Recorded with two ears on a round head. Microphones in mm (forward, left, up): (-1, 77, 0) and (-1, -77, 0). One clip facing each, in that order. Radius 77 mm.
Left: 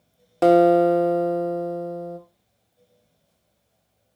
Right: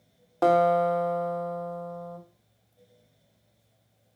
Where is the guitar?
25° left (ahead or behind), 1.0 m.